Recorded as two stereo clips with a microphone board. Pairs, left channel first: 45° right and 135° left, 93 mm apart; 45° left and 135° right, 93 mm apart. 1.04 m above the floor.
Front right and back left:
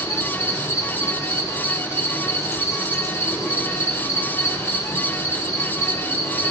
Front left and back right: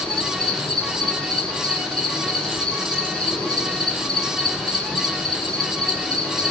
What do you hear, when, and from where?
0.0 s an insect: 35° right, 1.3 m